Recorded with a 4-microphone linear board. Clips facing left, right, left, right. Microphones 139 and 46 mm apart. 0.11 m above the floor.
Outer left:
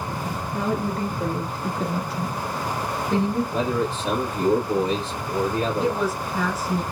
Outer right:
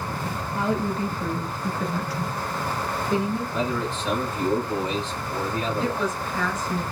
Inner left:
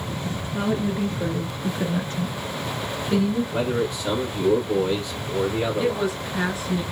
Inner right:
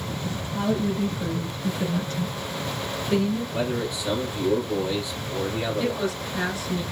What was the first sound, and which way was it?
A woman speaking, 50° left (ahead or behind).